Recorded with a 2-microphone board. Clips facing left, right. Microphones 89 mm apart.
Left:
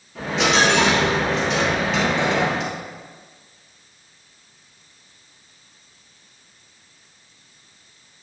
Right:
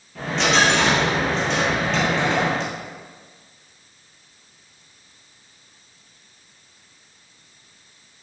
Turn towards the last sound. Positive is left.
turn(degrees=0)  # may be behind; listen again after turning